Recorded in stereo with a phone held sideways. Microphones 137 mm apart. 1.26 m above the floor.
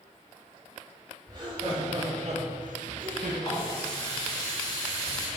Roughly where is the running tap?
Left.